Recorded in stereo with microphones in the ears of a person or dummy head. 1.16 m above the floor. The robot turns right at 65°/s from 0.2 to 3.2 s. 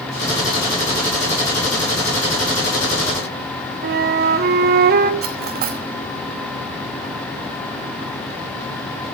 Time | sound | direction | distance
3.8 | a flute | 45° right (ahead or behind) | 0.9 m
5.2 | cutlery clinking | 45° right (ahead or behind) | 1.1 m